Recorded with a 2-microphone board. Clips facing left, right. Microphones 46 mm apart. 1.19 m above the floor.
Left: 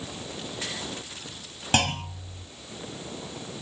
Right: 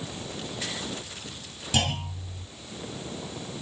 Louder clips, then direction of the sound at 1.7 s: Left 3 dB; 55° left (ahead or behind).